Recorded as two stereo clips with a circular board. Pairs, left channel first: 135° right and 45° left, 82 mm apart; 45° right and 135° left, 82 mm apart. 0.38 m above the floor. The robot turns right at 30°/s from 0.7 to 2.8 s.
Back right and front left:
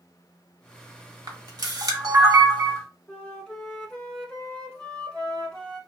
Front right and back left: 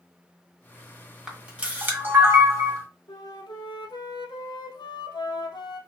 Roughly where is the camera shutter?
Ahead left.